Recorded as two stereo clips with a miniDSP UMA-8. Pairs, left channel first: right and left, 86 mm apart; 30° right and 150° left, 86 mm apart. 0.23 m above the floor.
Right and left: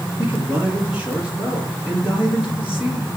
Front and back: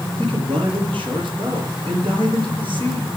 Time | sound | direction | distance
0.2 | a man speaking | 165° left | 4.5 m